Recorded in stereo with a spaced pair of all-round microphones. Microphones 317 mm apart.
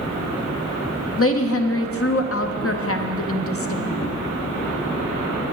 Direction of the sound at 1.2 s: 45° left (ahead or behind).